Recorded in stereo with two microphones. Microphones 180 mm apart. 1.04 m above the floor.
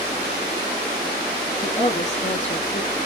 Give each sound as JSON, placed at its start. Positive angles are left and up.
{"t": 1.6, "sound": "a woman speaking", "side_deg": 40, "distance_m": 1.7}